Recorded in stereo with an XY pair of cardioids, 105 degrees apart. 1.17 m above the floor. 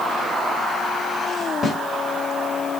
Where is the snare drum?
40° left, 4 m.